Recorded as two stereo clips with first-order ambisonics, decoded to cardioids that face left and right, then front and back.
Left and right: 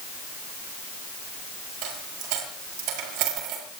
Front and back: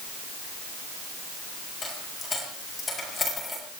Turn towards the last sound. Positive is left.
turn(degrees=-75)